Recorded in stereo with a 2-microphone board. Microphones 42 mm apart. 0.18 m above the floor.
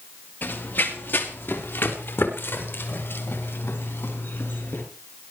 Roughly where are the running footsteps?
Left.